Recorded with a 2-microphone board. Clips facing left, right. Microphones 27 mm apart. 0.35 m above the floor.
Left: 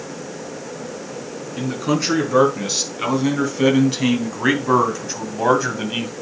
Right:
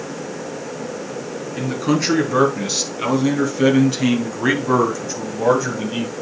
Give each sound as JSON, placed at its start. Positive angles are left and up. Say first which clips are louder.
{"t": 1.6, "sound": "a man speaking", "louder": "right 1 dB", "side_deg": 0, "distance_m": 3.5}